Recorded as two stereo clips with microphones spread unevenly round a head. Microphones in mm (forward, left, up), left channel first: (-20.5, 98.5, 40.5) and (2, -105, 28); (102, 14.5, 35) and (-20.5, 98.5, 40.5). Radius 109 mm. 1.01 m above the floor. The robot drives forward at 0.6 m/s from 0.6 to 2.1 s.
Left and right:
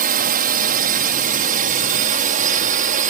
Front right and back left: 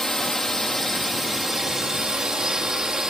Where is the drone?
120° right; by 3.1 s 125° right.